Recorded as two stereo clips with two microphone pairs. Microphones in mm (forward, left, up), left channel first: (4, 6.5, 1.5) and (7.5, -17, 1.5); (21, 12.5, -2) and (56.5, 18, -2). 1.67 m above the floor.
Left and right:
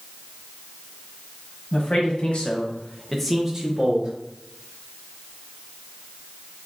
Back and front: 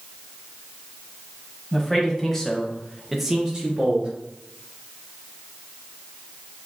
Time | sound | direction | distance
1.7 | a man speaking | 115° left | 1.5 m